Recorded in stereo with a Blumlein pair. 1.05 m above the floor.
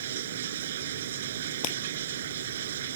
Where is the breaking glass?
45° left.